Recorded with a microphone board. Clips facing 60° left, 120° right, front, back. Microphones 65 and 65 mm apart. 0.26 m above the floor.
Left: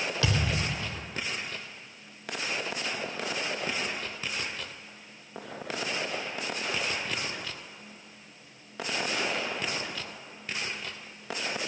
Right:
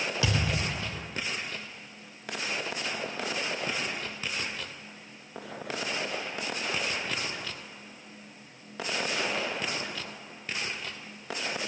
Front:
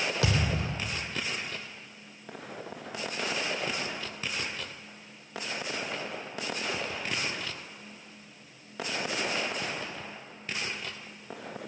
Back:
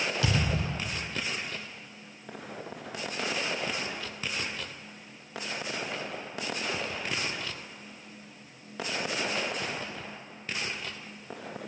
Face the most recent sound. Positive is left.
turn(degrees=-45)